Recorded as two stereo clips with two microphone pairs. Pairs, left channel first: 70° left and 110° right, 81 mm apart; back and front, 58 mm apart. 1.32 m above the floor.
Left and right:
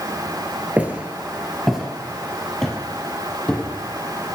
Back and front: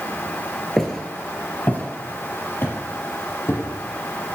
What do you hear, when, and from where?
0.8 s footsteps: 115° right, 1.3 m; by 3.6 s 145° left, 2.5 m